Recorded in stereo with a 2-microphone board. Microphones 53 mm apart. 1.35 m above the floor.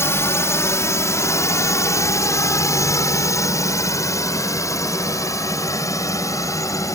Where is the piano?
No piano in this recording.